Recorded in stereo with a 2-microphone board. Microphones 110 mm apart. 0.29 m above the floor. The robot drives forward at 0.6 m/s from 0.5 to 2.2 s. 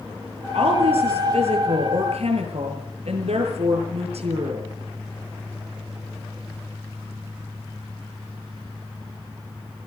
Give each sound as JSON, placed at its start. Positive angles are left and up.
{"t": 0.5, "sound": "a woman speaking", "side_deg": -70, "distance_m": 7.5}